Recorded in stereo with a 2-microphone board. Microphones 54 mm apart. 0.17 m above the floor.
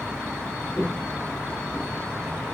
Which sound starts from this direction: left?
Footsteps, at 0.8 s.